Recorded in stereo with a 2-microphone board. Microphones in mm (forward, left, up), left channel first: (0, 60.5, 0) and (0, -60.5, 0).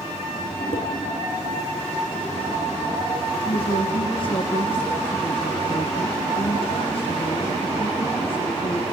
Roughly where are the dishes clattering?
Left.